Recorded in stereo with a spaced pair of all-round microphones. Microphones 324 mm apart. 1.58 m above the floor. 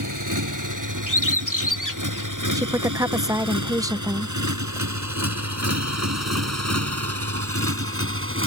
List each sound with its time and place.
0.0 s a motorcycle: 70° right (ahead or behind); by 8.5 s 40° right (ahead or behind)
1.1 s a bird: 70° left (ahead or behind)
2.5 s a woman speaking: 10° right (ahead or behind)